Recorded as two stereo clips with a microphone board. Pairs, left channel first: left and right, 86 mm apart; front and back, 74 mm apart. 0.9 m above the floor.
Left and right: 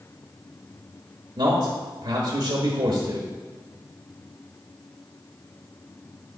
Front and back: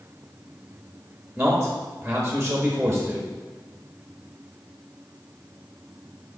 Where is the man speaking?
105° right, 1.1 m.